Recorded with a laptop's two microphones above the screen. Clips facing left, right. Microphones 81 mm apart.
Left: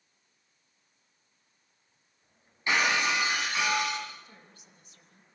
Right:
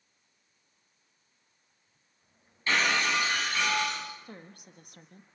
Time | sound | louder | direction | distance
2.7 | breaking glass | left 1 dB | 15° left (ahead or behind) | 5 m
4.2 | a woman speaking | right 8 dB | 55° right (ahead or behind) | 1.3 m